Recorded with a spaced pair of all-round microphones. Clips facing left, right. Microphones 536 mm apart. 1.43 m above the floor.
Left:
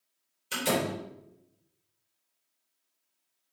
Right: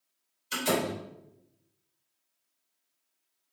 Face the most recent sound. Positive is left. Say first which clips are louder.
# even
turn(degrees=85)